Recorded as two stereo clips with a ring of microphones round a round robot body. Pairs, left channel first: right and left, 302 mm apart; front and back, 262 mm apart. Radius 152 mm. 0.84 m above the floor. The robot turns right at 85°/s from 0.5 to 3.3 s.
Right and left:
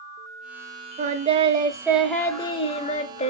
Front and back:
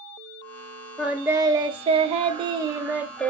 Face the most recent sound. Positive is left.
turn(degrees=-75)